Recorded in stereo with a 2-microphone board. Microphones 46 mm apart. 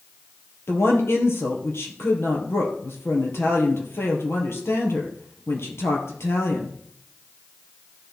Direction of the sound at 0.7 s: 65° left (ahead or behind).